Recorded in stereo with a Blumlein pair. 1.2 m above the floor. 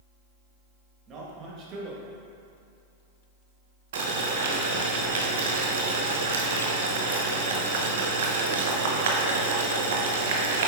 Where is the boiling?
55° right, 0.9 m.